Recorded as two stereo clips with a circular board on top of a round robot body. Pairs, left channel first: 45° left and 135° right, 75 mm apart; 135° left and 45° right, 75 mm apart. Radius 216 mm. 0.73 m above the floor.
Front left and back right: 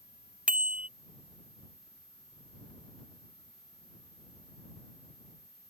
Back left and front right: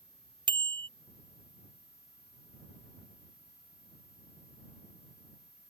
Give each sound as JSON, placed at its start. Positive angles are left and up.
{"t": 0.5, "sound": "a bicycle bell", "azimuth_deg": -60}